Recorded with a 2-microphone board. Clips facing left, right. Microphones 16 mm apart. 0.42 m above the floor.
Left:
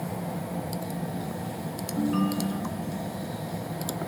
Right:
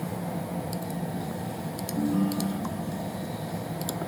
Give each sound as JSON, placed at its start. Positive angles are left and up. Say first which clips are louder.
{"t": 2.0, "sound": "a ringtone", "louder": "even", "side_deg": 50, "distance_m": 2.5}